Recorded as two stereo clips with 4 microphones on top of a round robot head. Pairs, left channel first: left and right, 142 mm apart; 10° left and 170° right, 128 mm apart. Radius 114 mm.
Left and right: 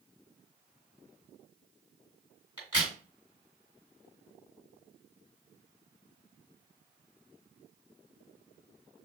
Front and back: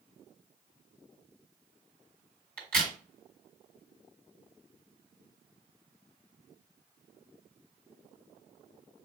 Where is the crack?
160° right, 2.5 m.